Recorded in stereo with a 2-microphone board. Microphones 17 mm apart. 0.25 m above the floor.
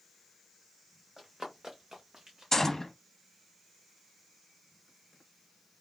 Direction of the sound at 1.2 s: 30° right (ahead or behind).